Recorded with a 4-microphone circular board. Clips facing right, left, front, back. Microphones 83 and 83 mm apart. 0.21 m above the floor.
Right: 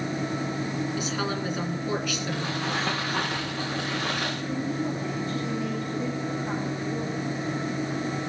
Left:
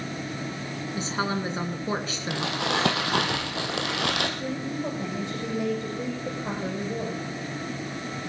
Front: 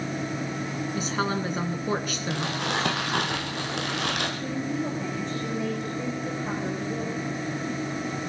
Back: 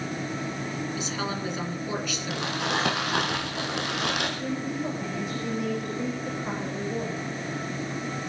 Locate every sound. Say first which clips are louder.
0.9 s a woman speaking: left 1 dB, front 3 dB; 35° left, 2.5 m
2.3 s crumpling: left 5 dB, even; 90° left, 3 m
4.4 s a woman speaking: right 1 dB, front 1 dB; 95° left, 9.5 m